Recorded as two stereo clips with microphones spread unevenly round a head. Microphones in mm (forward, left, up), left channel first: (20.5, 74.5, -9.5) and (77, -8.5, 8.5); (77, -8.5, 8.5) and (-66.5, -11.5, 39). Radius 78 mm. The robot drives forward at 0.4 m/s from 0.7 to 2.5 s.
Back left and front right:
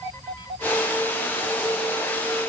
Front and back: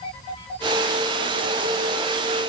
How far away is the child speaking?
No child speaking in this recording.